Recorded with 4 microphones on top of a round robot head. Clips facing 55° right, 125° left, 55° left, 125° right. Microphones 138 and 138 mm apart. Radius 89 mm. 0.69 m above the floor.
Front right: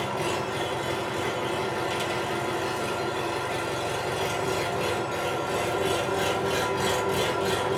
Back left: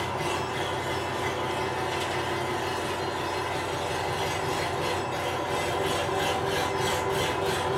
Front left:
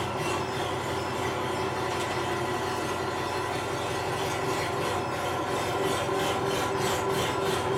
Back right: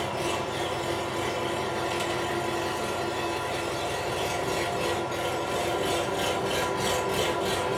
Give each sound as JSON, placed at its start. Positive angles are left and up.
{"t": 0.0, "sound": "an engine running", "azimuth_deg": -55, "distance_m": 1.7}